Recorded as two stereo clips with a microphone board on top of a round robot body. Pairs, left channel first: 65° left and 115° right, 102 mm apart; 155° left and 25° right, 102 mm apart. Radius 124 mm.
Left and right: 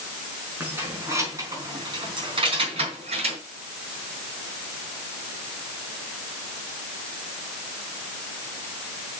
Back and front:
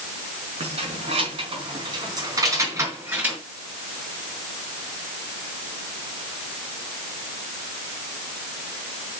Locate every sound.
0.6 s keys jangling: 40° right, 4.5 m; by 3.4 s 100° right, 4.5 m